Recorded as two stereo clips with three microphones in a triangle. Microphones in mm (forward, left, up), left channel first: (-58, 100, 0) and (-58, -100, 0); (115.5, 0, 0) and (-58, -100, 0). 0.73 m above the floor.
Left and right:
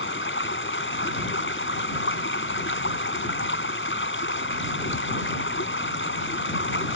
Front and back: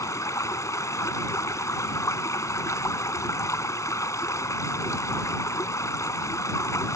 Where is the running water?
105° left.